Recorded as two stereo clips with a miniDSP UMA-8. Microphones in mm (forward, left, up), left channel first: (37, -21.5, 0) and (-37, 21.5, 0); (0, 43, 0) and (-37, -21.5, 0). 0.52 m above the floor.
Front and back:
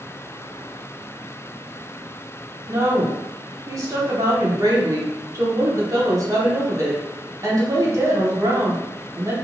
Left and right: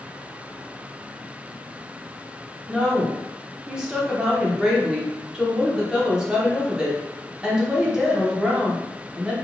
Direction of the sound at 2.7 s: 165° left.